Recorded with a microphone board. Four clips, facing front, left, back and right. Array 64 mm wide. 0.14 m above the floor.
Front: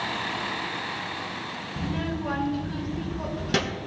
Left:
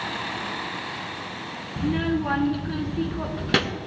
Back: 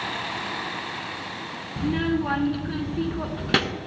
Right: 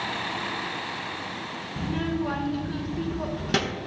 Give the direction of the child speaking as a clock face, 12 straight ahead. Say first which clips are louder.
Left 4 dB, back 7 dB; 7 o'clock.